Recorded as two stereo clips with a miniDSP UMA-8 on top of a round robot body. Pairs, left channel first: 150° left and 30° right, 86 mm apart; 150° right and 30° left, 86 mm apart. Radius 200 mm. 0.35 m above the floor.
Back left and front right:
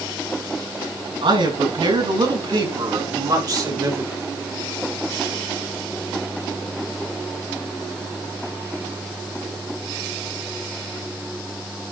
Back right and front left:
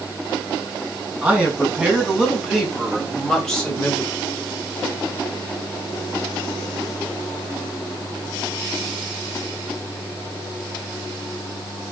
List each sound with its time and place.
1.2 s a man speaking: 45° right, 6 m; by 4.1 s 80° right, 3 m